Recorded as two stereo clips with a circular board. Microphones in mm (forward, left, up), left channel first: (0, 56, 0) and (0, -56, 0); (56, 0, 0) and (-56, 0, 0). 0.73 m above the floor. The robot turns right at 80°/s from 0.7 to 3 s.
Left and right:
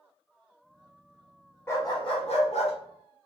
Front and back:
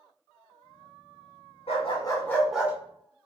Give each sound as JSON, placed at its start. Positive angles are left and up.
{"t": 1.7, "sound": "a dog barking", "azimuth_deg": 25, "distance_m": 0.8}